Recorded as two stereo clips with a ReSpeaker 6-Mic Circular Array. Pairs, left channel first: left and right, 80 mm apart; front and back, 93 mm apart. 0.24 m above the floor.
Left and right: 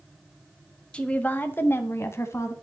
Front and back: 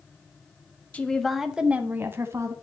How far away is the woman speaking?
About 1.1 m.